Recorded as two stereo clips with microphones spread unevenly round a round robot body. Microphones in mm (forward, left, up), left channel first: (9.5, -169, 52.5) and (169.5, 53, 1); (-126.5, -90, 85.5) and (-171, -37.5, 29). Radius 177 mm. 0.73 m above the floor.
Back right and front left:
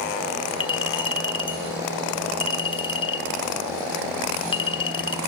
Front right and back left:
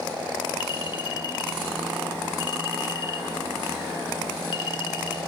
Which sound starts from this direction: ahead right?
A clink, at 0.6 s.